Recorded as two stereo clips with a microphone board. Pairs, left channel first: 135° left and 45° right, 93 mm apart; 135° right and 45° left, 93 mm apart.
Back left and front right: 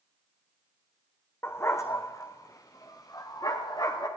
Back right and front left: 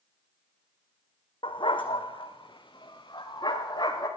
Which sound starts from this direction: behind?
A dog barking, at 1.4 s.